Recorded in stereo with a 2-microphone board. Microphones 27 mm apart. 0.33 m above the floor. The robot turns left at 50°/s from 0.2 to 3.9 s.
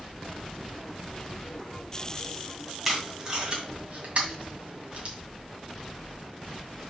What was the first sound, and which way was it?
Tape being pulled, 5° right (ahead or behind).